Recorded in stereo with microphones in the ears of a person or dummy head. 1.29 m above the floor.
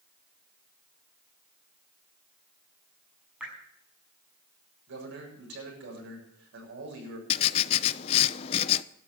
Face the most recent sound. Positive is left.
turn(degrees=30)  # may be behind; listen again after turning